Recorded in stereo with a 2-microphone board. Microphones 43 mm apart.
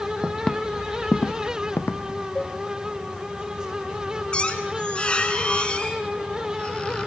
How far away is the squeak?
About 2.5 m.